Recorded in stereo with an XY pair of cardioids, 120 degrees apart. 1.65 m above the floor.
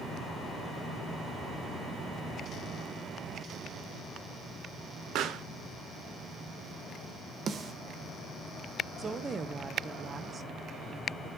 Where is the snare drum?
45° right, 1.2 m.